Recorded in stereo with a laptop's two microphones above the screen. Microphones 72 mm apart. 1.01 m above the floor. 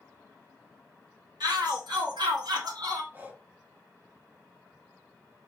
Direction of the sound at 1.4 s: 75° right (ahead or behind).